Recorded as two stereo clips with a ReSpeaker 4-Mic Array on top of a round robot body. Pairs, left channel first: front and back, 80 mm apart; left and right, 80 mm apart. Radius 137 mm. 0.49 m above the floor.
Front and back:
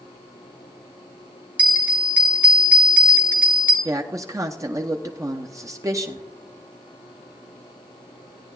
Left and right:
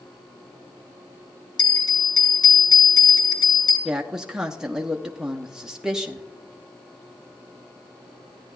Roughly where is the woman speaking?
Behind.